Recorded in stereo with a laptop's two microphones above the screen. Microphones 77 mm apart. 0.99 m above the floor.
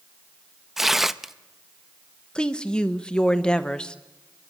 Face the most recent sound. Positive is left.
turn(degrees=10)  # may be behind; listen again after turning